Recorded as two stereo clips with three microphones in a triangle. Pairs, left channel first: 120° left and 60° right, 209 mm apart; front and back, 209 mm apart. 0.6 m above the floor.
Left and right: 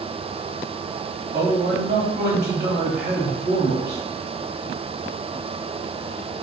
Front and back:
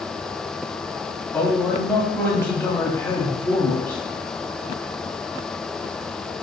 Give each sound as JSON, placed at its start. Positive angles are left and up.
{"t": 1.3, "sound": "a man speaking", "azimuth_deg": -65, "distance_m": 1.1}